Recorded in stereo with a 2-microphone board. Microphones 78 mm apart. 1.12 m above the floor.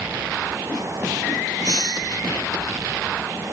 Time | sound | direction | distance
1.6 | a hiss | 55° left (ahead or behind) | ?